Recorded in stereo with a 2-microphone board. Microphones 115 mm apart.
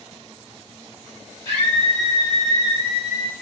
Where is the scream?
45° right (ahead or behind), 1.5 m; by 3.3 s 35° right (ahead or behind), 1.4 m.